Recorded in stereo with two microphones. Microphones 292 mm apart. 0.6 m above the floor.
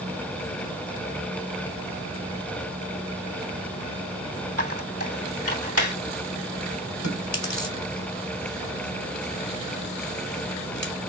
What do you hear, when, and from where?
4.6 s a squeak: 75° right (ahead or behind), 2 m
7.0 s chewing: 65° left (ahead or behind), 1.7 m